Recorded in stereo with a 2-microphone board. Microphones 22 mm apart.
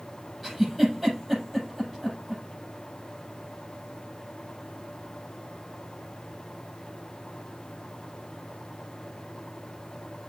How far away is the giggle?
About 7 m.